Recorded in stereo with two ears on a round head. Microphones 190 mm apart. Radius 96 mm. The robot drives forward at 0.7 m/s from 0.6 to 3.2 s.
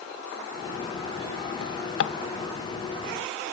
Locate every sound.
1.6 s a drawer: 80° left, 0.8 m; by 2.1 s 60° left (ahead or behind), 0.9 m